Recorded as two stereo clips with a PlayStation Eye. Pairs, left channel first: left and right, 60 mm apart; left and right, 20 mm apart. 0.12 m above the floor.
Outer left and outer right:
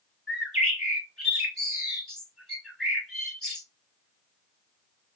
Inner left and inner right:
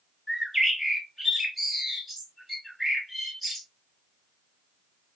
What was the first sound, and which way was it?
A bird, 10° left (ahead or behind).